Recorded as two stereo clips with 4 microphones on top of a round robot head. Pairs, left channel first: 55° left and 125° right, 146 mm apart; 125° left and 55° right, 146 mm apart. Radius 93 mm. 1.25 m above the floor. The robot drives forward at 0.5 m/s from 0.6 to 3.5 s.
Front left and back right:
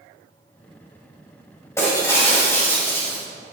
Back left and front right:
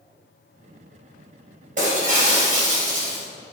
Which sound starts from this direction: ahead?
Breaking glass, at 1.8 s.